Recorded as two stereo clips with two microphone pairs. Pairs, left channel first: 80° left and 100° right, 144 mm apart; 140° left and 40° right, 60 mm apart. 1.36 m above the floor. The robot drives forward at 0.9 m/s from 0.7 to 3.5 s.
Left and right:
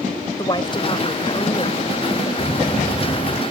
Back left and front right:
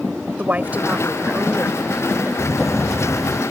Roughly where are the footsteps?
Behind left.